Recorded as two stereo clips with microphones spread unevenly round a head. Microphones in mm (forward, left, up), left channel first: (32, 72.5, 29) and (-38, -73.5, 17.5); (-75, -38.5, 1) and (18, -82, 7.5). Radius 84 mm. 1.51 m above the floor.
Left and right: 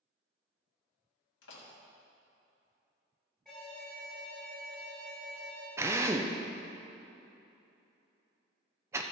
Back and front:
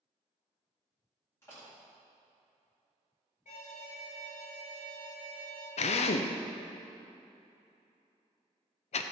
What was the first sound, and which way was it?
A door slam, 80° left.